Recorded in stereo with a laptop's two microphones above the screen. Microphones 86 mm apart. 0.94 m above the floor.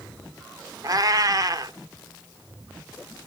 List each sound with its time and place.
0.8 s a cat meowing: 45° right (ahead or behind), 1.0 m